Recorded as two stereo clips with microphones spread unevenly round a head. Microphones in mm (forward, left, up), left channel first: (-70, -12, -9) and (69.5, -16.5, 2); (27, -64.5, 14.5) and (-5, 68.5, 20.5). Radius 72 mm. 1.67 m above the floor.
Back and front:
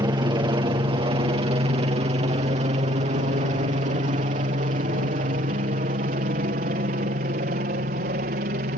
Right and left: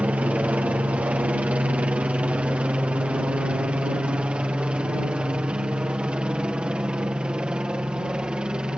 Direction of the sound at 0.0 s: 30° left.